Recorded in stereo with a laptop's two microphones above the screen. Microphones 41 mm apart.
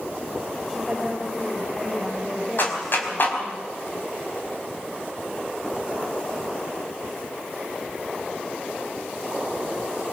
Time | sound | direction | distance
0.7 | a woman speaking | 5° left (ahead or behind) | 3.5 m
2.6 | a clap | 55° left (ahead or behind) | 5 m